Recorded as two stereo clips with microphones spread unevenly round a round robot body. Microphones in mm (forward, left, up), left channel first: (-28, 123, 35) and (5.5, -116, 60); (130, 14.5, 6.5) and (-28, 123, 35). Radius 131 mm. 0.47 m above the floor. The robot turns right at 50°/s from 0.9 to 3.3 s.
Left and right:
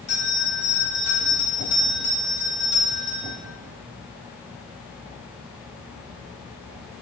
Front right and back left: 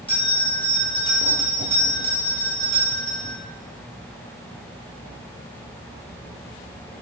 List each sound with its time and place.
0.1 s a bell: 25° left, 1.3 m; by 3.4 s 145° left, 1.3 m